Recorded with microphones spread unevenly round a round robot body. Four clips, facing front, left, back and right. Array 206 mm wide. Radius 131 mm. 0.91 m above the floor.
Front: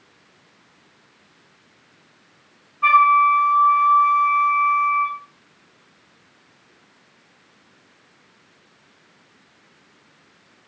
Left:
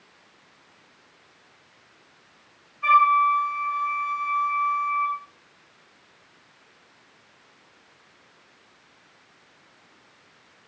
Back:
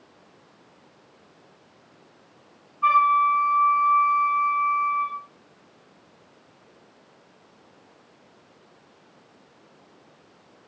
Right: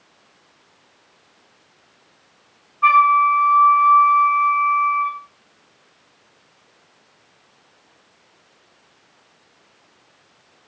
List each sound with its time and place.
2.8 s a flute: 50° right, 9.5 m